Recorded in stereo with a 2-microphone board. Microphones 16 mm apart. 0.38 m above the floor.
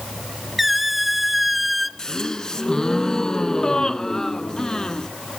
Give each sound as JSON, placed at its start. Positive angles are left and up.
{"t": 0.6, "sound": "a squeak", "side_deg": -10, "distance_m": 0.9}
{"t": 2.0, "sound": "a gasp", "side_deg": 35, "distance_m": 1.0}